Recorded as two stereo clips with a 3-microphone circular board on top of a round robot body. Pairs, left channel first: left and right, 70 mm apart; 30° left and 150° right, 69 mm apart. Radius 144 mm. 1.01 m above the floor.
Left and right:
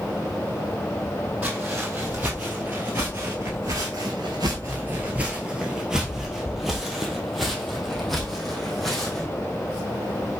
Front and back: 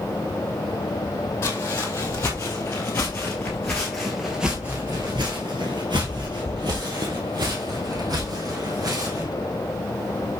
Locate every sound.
1.4 s footsteps: 15° right, 2 m; by 9.3 s 175° left, 3 m